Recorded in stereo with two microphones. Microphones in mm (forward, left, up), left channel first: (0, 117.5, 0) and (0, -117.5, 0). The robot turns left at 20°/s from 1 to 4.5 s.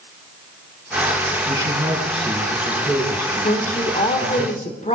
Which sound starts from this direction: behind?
A man speaking, at 1.5 s.